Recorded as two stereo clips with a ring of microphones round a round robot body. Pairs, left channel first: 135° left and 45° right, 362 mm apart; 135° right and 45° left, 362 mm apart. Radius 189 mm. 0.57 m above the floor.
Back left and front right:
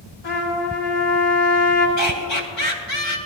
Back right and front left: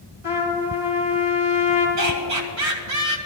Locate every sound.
0.2 s a trumpet: 130° left, 4.5 m
2.0 s laughter: 90° left, 3 m